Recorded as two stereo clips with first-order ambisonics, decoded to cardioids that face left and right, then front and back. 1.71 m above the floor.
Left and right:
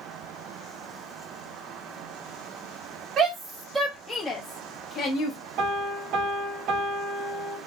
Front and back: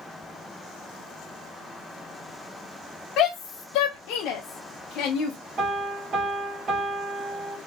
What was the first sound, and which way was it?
A shout, 35° right.